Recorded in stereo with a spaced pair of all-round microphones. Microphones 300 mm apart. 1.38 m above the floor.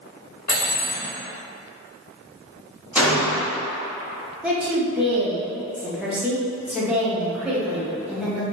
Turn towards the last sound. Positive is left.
turn(degrees=-5)  # may be behind; listen again after turning